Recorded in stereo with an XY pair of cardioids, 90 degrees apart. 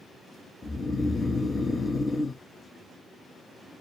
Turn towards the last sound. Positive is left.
turn(degrees=40)